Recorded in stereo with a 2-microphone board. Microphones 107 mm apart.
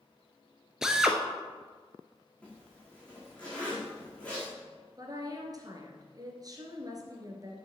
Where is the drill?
5° right (ahead or behind), 0.9 m.